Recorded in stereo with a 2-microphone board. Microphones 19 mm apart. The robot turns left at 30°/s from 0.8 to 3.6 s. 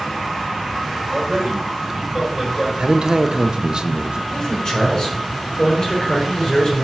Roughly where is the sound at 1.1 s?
Behind right.